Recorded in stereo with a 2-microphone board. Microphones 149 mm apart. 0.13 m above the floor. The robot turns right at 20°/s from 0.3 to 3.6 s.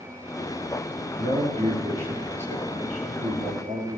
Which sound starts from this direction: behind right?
A man speaking, at 1.2 s.